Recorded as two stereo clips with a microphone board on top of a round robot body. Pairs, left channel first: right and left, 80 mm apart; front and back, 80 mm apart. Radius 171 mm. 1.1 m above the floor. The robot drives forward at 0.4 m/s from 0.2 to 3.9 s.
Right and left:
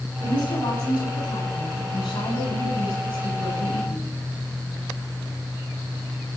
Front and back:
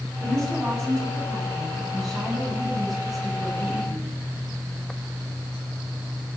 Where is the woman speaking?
85° right, 8 m; by 4.2 s 95° right, 8 m.